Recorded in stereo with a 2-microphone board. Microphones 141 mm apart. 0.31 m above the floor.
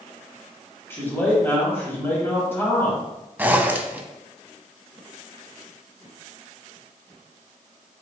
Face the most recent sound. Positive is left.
turn(degrees=-15)  # may be behind; listen again after turning